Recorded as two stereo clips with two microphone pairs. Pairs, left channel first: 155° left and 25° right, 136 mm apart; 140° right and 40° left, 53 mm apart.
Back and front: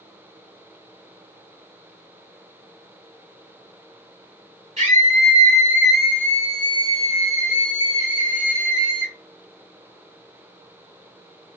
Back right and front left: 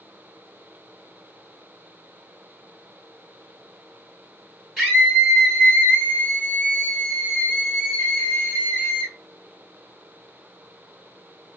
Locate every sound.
4.8 s a scream: 55° right, 0.9 m; by 9.1 s 155° left, 1.7 m